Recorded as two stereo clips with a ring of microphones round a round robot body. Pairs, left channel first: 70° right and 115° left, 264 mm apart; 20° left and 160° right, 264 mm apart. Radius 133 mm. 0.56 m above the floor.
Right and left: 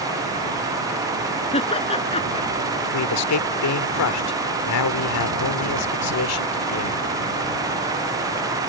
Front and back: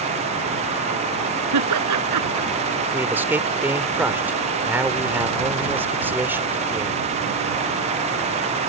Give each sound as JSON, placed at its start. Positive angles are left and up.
{"t": 1.5, "sound": "laughter", "azimuth_deg": -135}
{"t": 2.9, "sound": "a man speaking", "azimuth_deg": -75}